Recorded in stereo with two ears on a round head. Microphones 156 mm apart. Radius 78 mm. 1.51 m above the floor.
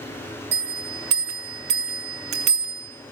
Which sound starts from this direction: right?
A bell, at 0.5 s.